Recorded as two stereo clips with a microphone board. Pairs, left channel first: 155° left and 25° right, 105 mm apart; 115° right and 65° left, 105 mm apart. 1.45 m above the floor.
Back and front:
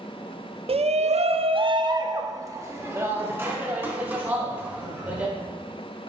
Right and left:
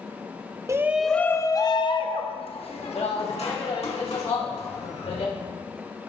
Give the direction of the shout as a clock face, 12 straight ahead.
12 o'clock.